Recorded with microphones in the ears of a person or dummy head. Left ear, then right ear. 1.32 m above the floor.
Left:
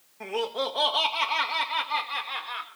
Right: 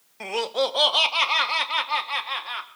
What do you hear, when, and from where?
0.2 s laughter: 75° right (ahead or behind), 1.1 m; by 2.7 s 70° right (ahead or behind), 2.5 m